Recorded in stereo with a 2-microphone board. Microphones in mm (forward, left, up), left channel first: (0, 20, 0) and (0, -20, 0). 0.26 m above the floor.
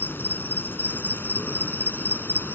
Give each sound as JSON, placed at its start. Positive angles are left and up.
{"t": 0.0, "sound": "an insect", "side_deg": 70}